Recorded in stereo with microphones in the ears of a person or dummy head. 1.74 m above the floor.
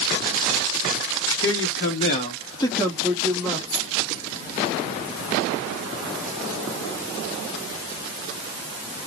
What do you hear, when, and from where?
1.4 s a man speaking: 70° left (ahead or behind), 0.8 m; by 3.6 s centre (ahead or behind), 1.3 m
3.7 s keys jangling: 50° left (ahead or behind), 1.2 m